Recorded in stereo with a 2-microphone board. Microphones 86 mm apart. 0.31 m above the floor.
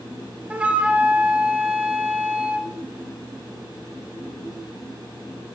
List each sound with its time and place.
0.5 s a flute: 15° right (ahead or behind), 0.5 m